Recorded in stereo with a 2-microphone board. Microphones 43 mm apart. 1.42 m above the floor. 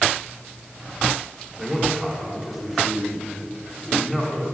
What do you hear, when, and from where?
1.6 s a man speaking: centre (ahead or behind), 4 m